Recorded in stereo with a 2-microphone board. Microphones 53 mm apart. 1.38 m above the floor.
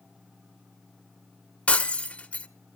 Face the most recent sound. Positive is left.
turn(degrees=25)  # may be behind; listen again after turning